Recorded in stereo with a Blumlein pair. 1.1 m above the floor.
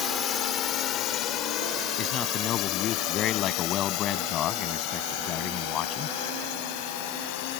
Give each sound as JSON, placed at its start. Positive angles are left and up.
{"t": 0.0, "sound": "a drone", "azimuth_deg": 25}
{"t": 2.0, "sound": "a man speaking", "azimuth_deg": 30}